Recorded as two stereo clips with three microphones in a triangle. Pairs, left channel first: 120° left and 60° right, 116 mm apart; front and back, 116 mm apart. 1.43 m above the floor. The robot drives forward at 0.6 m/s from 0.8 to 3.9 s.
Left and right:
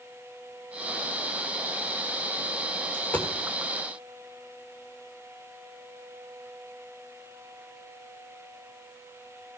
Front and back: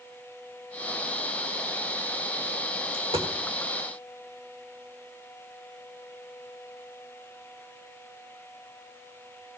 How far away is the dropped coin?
About 1.5 m.